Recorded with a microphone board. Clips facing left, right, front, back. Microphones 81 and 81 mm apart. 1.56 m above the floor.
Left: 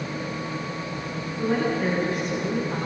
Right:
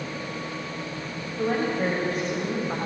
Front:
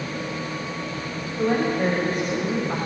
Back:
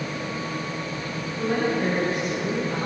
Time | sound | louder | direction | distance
1.4 | a woman speaking | left 1 dB, front 2 dB | 45° right | 8 m